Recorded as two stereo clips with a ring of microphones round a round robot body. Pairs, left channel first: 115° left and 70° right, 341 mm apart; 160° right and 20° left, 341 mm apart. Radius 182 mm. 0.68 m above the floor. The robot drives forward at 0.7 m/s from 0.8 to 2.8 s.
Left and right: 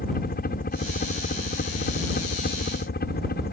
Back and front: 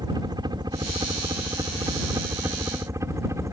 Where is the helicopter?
85° left; by 3.5 s 95° left.